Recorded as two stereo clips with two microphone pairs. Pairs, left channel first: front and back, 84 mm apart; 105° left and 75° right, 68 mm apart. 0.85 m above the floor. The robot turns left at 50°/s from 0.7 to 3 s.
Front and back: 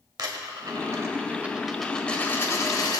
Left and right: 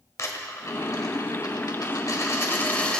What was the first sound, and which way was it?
A dropped coin, 145° left.